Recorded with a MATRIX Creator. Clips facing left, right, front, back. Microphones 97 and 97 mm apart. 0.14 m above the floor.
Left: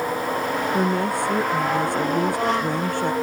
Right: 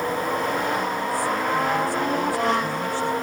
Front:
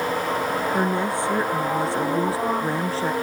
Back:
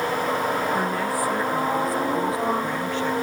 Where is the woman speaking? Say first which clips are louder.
Left 3 dB, front 1 dB; 65° left; by 3.1 s 55° left.